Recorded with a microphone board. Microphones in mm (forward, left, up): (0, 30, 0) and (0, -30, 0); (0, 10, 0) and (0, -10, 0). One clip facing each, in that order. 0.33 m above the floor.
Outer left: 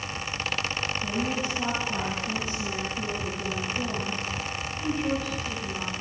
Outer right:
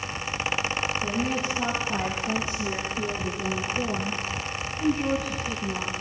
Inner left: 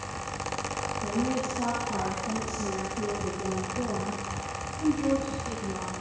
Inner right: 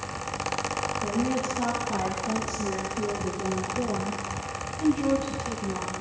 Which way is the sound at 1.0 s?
25° right (ahead or behind).